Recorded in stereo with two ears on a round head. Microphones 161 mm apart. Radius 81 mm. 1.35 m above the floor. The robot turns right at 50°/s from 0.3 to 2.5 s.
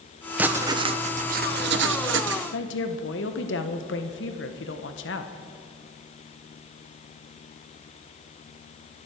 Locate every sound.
0.4 s writing: 170° right, 0.9 m; by 2.4 s 70° right, 0.9 m
2.5 s a woman speaking: 70° left (ahead or behind), 1.4 m